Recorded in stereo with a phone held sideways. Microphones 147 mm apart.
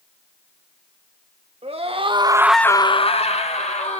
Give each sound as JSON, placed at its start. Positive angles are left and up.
{"t": 1.6, "sound": "a scream", "side_deg": -45, "distance_m": 1.5}